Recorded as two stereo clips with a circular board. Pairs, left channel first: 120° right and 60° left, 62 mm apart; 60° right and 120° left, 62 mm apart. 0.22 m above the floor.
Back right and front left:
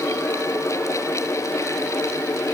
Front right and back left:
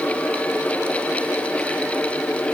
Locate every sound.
Only background noise.